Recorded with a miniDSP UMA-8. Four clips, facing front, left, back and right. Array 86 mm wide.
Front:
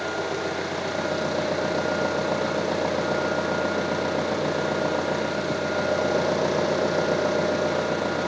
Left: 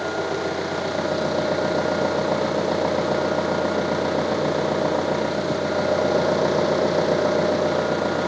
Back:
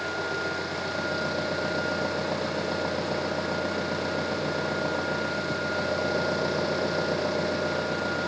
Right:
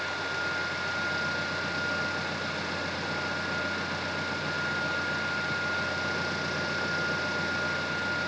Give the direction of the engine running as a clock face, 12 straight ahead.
10 o'clock.